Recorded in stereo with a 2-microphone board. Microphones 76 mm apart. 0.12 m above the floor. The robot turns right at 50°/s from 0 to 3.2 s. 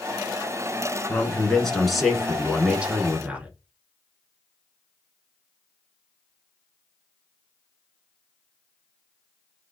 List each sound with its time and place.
1.1 s a man speaking: 15° left (ahead or behind), 1.1 m; by 3.5 s 20° right (ahead or behind), 1.1 m